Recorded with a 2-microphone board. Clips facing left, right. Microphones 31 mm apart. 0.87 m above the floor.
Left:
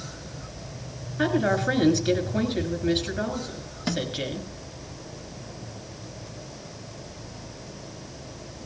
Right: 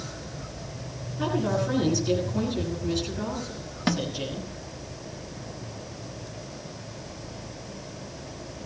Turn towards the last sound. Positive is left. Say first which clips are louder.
# right 2 dB
turn(degrees=-25)  # may be behind; listen again after turning